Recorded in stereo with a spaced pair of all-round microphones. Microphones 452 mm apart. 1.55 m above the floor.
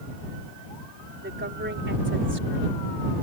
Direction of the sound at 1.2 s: 25° right (ahead or behind).